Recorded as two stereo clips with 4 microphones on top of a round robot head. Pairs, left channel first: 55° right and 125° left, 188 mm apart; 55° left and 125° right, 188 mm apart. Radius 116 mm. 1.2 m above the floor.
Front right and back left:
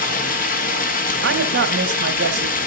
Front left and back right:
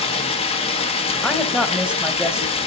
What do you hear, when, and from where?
0.0 s running water: 5° right, 1.6 m
1.2 s a woman speaking: 145° left, 2.5 m